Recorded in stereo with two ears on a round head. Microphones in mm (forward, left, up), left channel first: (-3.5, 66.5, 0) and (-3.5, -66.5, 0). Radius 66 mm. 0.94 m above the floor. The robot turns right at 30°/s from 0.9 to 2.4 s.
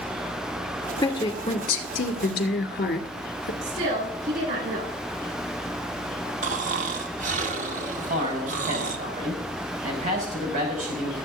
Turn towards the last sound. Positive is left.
turn(degrees=-50)  # may be behind; listen again after turning